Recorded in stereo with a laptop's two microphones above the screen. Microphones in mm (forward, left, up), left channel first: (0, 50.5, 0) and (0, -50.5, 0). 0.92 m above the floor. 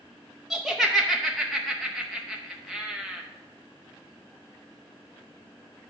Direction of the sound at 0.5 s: Centre (ahead or behind).